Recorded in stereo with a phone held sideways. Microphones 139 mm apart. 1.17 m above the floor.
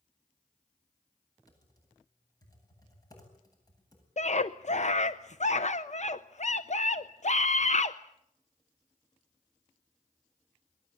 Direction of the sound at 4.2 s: 55° left (ahead or behind).